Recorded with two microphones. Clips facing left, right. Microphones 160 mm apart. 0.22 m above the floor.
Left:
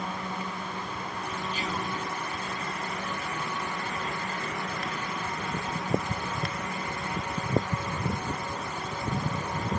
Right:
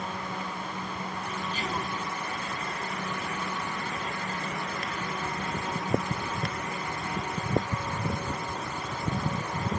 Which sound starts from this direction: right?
Whispering, at 1.5 s.